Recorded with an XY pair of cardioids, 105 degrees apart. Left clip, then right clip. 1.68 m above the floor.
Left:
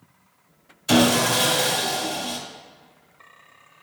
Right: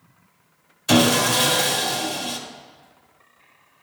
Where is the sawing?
20° right, 1.7 m.